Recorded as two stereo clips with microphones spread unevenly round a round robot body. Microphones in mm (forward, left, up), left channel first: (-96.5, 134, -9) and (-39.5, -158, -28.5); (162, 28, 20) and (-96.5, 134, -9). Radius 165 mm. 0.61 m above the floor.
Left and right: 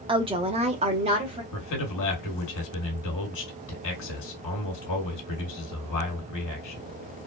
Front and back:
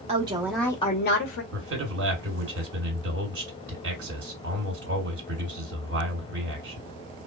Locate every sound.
0.1 s a woman speaking: 145° right, 1.0 m; by 1.4 s 15° right, 0.9 m
1.5 s a man speaking: 115° left, 2.5 m